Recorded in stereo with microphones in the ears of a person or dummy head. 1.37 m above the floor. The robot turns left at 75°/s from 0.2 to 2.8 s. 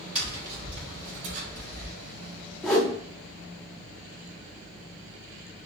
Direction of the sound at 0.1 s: 10° right.